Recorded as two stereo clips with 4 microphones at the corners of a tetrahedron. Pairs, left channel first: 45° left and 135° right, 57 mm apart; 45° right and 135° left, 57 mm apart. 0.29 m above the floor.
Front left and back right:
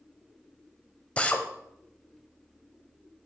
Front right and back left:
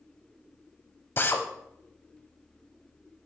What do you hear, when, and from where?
1.2 s a drill: 15° right, 0.7 m